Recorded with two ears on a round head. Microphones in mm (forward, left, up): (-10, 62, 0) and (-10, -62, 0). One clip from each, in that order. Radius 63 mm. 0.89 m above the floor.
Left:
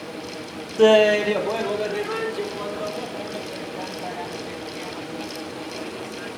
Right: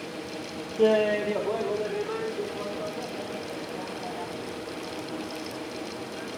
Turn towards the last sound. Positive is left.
turn(degrees=40)  # may be behind; listen again after turning